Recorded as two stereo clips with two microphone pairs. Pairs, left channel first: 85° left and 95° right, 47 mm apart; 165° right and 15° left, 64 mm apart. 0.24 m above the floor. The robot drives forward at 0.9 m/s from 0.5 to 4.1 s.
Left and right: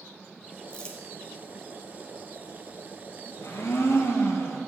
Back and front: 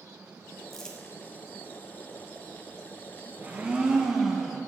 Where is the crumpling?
115° left, 1.4 m; by 1.0 s 135° left, 1.4 m.